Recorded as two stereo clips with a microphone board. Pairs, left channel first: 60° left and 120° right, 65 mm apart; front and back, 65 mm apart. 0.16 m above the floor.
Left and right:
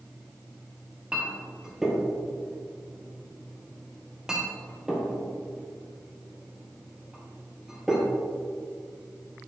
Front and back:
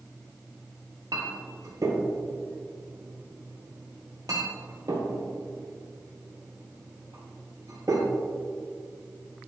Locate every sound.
1.1 s a clink: 160° left, 2 m